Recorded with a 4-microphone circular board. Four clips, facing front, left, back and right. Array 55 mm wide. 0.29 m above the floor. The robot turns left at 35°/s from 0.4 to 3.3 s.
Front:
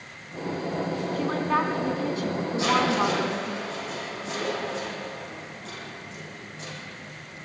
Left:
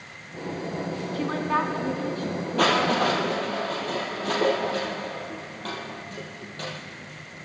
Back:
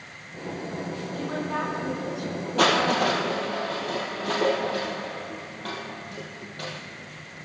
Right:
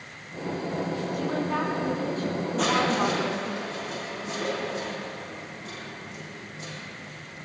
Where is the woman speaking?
55° left, 3 m; by 3.6 s 20° right, 3 m.